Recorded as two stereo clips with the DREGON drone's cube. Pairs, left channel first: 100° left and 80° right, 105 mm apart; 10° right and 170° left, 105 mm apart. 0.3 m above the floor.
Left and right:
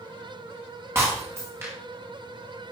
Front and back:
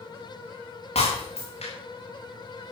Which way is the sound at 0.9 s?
10° right.